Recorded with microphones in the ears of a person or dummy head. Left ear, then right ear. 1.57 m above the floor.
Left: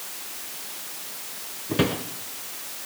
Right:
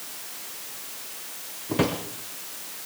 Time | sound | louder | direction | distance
1.7 | a drawer | left 1 dB | 5° right (ahead or behind) | 1.3 m